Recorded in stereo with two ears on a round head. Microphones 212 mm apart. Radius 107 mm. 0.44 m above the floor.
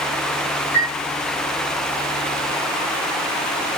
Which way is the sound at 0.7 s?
50° left (ahead or behind).